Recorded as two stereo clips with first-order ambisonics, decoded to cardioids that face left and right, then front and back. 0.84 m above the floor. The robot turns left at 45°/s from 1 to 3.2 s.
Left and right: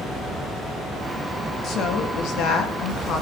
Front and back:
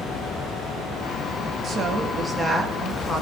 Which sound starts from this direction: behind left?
A woman speaking, at 1.6 s.